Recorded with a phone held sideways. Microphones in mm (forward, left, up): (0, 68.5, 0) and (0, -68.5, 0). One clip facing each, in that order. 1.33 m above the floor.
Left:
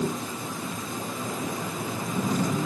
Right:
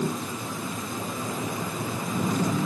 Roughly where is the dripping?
I don't hear dripping.